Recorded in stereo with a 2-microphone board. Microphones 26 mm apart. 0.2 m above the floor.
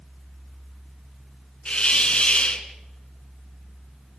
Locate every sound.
1.6 s a hiss: 45° left (ahead or behind), 2 m